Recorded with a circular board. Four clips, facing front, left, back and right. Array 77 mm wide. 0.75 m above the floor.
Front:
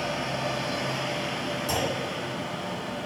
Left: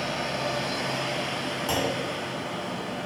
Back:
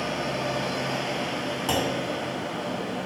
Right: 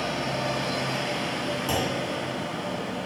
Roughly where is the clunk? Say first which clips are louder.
Left 1 dB, back 3 dB; behind.